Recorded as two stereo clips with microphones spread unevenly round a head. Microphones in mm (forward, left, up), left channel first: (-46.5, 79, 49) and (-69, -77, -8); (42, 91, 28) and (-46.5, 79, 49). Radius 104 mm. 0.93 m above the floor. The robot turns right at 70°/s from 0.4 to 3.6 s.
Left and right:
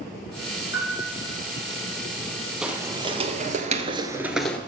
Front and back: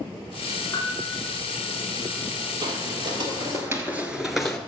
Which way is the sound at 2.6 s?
165° left.